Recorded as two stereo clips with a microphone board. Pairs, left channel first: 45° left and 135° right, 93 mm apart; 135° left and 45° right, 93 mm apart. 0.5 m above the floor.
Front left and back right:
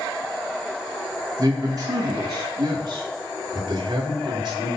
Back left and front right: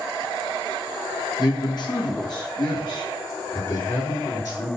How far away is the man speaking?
About 4.5 m.